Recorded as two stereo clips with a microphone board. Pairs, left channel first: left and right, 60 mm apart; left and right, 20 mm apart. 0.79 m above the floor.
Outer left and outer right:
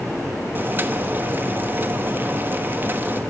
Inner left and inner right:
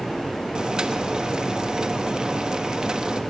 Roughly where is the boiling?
Right.